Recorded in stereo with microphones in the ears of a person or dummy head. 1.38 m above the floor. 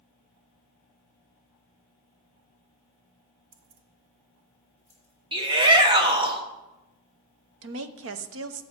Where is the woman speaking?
70° right (ahead or behind), 0.7 m.